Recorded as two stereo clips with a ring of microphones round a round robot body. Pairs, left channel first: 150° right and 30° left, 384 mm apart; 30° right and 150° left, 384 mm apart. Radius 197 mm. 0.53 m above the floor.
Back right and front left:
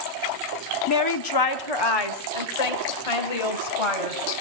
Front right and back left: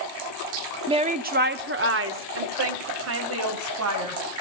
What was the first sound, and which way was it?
A woman speaking, 140° right.